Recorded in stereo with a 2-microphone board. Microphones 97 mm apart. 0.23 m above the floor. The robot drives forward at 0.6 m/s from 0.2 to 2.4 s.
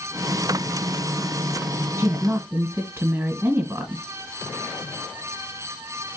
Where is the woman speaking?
25° right (ahead or behind), 1.4 m.